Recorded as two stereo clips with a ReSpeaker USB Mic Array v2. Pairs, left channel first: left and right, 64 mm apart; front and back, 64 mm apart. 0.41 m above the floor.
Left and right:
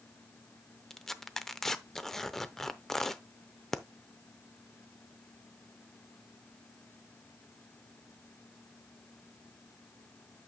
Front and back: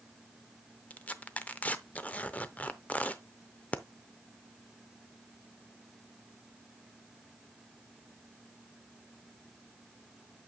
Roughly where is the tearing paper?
Ahead.